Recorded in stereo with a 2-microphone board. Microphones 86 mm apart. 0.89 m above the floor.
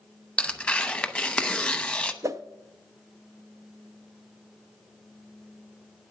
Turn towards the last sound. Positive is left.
turn(degrees=-35)  # may be behind; listen again after turning